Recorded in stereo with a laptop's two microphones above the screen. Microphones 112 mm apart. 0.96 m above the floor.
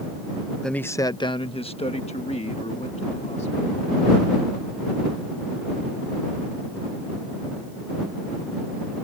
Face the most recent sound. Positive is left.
turn(degrees=80)